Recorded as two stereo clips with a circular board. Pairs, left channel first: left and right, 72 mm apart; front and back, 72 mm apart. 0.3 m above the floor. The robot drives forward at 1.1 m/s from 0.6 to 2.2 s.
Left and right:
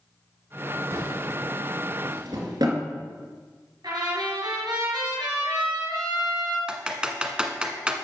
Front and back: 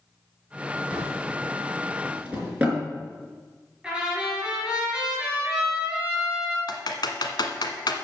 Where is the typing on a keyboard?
15° right, 1.3 m.